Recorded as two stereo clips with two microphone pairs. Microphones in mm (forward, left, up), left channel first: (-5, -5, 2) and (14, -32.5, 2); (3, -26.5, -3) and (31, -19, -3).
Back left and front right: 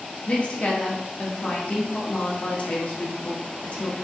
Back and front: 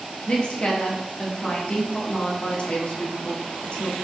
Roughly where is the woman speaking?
Behind.